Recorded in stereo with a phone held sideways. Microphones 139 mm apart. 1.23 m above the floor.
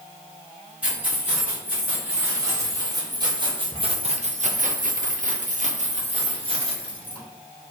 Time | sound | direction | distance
0.8 | keys jangling | 10° right (ahead or behind) | 2 m